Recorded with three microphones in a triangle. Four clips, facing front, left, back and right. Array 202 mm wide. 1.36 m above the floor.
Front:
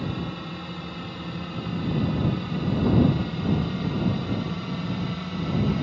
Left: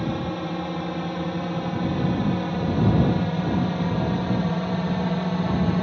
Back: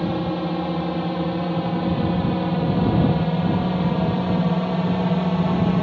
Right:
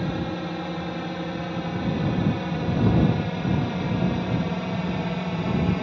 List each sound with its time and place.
0.0 s a drone: straight behind; by 5.8 s 175° left